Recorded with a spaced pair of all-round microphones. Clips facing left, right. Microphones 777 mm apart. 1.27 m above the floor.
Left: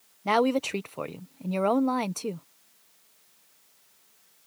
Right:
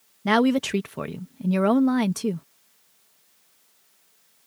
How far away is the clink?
I don't hear a clink.